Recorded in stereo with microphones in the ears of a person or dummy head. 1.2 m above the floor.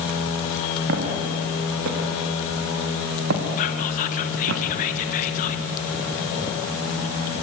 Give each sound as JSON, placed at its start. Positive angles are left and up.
{"t": 0.9, "sound": "footsteps", "side_deg": -60, "distance_m": 6.0}
{"t": 3.6, "sound": "whispering", "side_deg": 45, "distance_m": 1.2}